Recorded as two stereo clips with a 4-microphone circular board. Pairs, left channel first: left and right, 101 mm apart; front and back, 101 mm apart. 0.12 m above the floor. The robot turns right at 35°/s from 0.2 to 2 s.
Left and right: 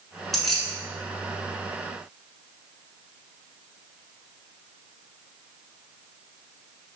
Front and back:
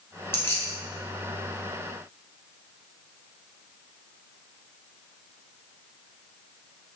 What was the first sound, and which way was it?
Keys jangling, 5° left.